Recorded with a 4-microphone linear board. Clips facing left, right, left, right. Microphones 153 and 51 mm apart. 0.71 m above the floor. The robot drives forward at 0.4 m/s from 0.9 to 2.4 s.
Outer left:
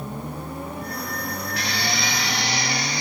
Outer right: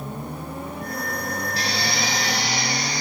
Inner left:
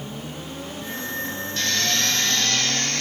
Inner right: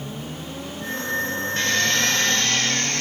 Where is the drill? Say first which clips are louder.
Outer left 1 dB, inner right 3 dB; 35° right (ahead or behind), 1.9 m; by 3.0 s 40° right (ahead or behind), 1.7 m.